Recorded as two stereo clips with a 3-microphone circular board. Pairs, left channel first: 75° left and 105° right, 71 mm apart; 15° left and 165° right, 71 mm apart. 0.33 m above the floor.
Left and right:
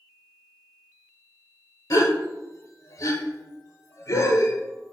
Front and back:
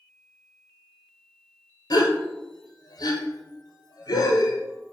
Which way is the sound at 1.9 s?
30° left.